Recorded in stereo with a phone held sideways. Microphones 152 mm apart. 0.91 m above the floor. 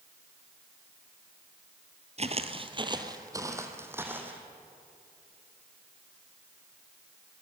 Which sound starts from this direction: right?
Footsteps, at 2.2 s.